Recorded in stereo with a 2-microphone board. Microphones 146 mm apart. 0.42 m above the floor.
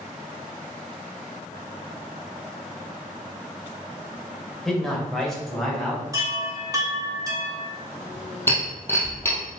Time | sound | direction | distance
4.7 | a man speaking | centre (ahead or behind) | 2 m
6.1 | a chime | 25° right (ahead or behind) | 2.0 m
8.5 | breaking glass | 15° left (ahead or behind) | 2.5 m